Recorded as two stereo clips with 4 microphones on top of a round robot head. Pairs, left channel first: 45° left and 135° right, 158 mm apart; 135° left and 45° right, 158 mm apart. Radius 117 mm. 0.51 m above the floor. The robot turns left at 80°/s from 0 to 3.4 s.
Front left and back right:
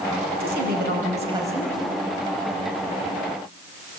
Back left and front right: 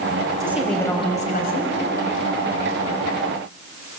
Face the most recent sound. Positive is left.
turn(degrees=0)